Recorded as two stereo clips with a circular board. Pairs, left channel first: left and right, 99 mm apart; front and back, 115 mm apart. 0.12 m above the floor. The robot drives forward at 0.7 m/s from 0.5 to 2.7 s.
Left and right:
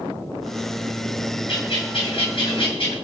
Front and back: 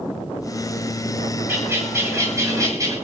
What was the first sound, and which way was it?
A bird, 110° left.